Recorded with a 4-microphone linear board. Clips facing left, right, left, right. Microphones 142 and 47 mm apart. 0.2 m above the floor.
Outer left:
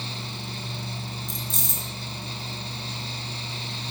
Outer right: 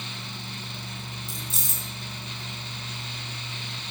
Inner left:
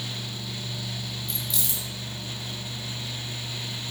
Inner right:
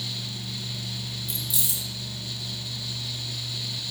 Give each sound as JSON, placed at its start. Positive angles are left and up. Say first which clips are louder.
{"t": 1.3, "sound": "keys jangling", "louder": "outer left 3 dB, even", "side_deg": -5, "distance_m": 1.2}